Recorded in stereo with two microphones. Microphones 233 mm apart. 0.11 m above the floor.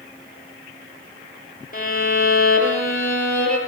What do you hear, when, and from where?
1.7 s a violin: 40° left (ahead or behind), 3 m